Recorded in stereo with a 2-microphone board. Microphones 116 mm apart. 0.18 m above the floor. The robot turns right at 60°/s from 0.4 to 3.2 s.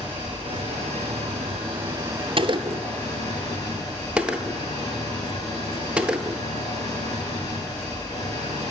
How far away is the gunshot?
About 0.8 m.